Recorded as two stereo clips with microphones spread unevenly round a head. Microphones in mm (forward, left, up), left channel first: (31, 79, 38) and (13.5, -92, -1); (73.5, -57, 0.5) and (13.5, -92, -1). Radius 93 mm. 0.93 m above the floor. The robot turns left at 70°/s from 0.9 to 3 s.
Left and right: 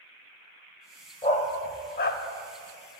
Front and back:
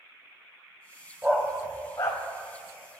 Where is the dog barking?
135° left, 1.1 m; by 2.2 s 70° left, 1.1 m.